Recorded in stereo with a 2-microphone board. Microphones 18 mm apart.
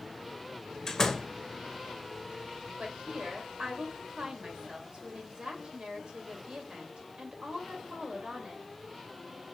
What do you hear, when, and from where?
0.9 s a door slam: 20° left (ahead or behind), 1.1 m
2.8 s a woman speaking: 60° right (ahead or behind), 2.5 m